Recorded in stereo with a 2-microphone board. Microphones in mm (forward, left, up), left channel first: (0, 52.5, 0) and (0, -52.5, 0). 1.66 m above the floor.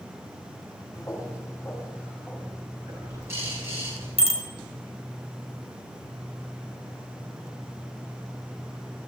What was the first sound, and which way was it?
Footsteps, 35° left (ahead or behind).